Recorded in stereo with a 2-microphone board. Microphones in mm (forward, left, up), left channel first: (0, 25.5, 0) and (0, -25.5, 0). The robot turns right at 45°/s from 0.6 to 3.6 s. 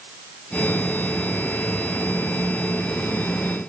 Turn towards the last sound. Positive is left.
No sound to turn to.